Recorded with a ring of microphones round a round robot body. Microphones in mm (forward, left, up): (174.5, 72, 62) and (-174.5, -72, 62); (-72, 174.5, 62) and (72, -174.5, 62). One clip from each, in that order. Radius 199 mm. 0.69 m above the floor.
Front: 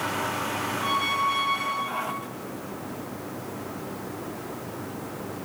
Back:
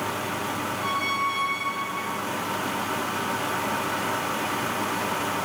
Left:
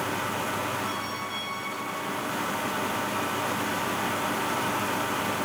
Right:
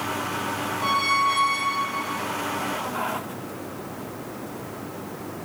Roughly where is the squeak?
Right.